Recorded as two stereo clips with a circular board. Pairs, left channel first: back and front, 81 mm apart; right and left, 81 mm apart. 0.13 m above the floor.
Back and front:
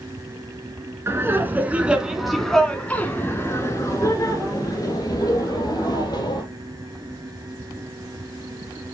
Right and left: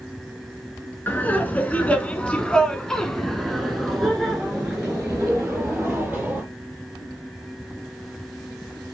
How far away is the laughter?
About 1.6 m.